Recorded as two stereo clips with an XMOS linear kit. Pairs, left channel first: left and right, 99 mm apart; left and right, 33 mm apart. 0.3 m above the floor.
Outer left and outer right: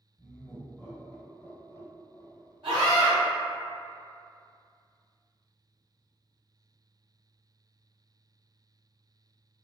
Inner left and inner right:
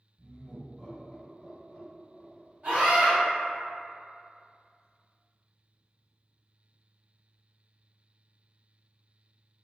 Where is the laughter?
5° right (ahead or behind), 1.5 m; by 2.6 s 35° left (ahead or behind), 1.2 m.